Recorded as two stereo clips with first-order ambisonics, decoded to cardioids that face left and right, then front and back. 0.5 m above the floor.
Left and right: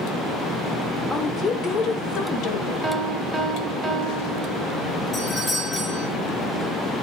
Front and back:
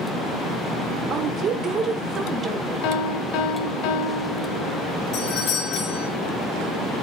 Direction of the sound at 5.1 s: 20° left.